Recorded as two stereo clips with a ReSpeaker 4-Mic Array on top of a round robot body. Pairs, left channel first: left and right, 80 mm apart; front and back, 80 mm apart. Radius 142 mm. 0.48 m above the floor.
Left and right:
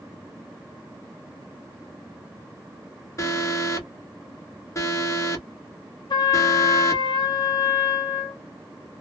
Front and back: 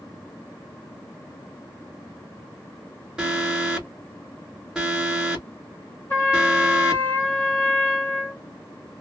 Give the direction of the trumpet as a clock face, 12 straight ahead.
10 o'clock.